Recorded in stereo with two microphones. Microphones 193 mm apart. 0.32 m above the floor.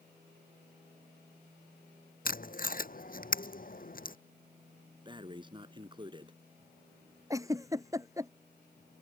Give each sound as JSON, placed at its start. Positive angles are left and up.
{"t": 2.2, "sound": "tape being pulled", "side_deg": 50}
{"t": 5.0, "sound": "breathing", "side_deg": -25}
{"t": 7.3, "sound": "a giggle", "side_deg": -15}